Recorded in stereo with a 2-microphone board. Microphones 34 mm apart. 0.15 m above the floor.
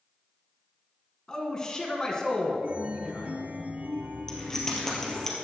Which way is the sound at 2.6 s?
55° right (ahead or behind).